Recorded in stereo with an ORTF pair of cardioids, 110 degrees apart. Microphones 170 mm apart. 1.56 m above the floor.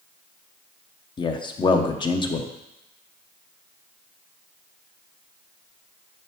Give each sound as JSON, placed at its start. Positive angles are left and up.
{"t": 1.2, "sound": "a man speaking", "azimuth_deg": 30, "distance_m": 0.9}